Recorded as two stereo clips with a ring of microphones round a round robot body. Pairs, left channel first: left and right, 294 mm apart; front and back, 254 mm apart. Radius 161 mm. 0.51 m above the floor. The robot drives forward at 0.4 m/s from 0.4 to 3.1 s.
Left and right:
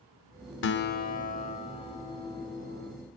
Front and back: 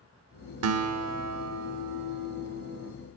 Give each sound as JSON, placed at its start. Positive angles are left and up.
{"t": 0.6, "sound": "a guitar", "azimuth_deg": 145, "distance_m": 0.5}